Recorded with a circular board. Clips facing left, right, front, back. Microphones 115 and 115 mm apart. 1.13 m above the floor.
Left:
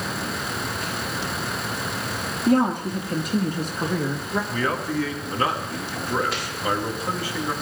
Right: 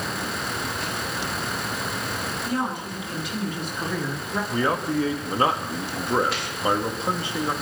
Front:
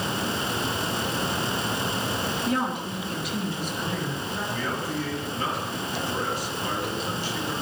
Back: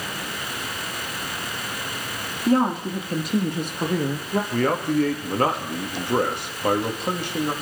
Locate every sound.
2.5 s a woman speaking: 125° left, 1.7 m; by 4.4 s 170° left, 1.9 m
4.5 s a man speaking: 155° right, 2 m